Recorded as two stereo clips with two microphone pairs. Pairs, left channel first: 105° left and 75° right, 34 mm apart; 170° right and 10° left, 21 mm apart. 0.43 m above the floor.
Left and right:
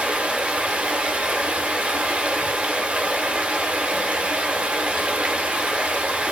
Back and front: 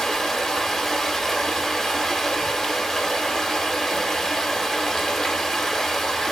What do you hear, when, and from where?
0.0 s running water: 110° right, 0.8 m